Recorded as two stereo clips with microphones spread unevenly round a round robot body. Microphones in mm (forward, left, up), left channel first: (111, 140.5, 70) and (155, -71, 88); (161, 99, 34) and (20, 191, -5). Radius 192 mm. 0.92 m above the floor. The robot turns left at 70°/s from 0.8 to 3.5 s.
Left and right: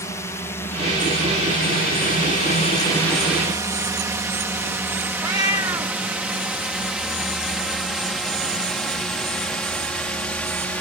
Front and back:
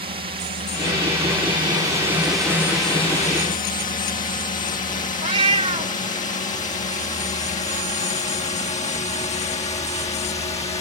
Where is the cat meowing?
150° right.